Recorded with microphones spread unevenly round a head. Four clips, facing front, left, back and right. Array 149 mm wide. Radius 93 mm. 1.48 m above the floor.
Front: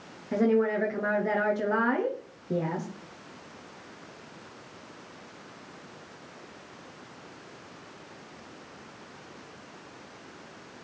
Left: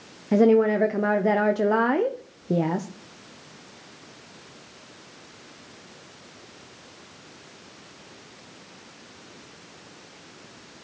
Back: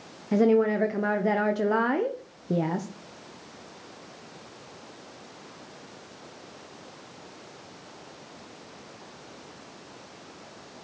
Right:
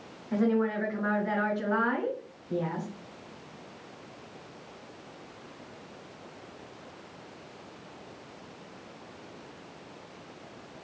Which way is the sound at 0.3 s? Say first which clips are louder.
Left 9 dB, back 3 dB; 100° left.